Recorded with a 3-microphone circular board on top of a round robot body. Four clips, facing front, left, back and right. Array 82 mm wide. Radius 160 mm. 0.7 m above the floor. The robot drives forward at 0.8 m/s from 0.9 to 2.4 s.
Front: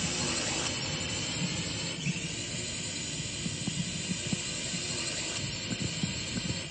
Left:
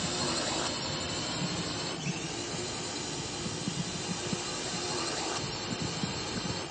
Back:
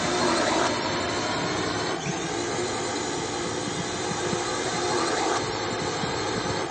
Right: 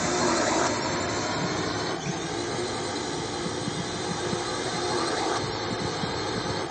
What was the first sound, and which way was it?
A drone, 145° right.